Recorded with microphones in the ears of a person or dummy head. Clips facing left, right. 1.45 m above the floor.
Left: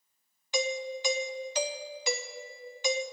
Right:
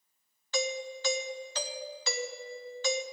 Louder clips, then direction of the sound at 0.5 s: Left 2 dB; 10° left (ahead or behind).